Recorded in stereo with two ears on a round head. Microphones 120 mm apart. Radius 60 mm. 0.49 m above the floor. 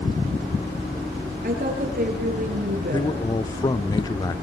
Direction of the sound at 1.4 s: 65° right (ahead or behind).